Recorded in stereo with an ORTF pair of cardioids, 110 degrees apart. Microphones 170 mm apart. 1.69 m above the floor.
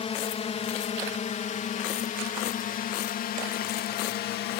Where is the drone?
35° left; by 4.6 s 70° left.